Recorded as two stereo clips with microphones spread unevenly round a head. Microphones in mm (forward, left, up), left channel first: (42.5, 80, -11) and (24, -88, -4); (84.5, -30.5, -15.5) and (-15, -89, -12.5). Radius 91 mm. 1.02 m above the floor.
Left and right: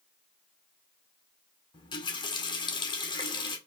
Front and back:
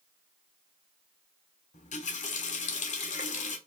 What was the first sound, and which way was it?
A running tap, 20° left.